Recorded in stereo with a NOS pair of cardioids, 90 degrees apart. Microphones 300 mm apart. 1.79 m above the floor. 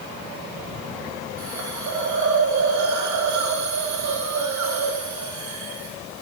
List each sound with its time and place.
1.4 s a hiss: 70° right, 3 m